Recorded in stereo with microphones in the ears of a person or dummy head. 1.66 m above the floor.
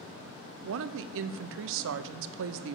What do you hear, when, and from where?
0.6 s a woman speaking: 70° right (ahead or behind), 0.6 m